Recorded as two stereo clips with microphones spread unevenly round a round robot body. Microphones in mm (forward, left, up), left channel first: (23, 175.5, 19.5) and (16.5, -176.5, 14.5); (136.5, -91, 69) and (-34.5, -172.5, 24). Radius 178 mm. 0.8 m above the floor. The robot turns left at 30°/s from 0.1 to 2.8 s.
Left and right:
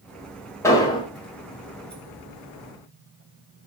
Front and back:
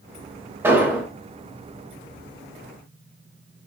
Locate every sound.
0.6 s an explosion: 165° left, 0.7 m; by 1.1 s 150° left, 0.7 m